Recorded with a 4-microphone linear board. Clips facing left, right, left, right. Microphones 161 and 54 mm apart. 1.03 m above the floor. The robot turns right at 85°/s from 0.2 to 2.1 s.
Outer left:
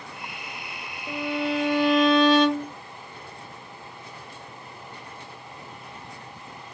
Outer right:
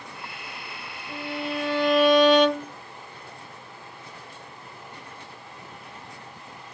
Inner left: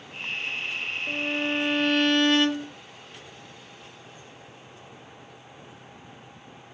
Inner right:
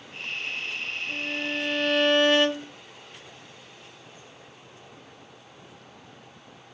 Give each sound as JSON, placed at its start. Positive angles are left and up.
{"t": 1.1, "sound": "a violin", "azimuth_deg": 105, "distance_m": 1.4}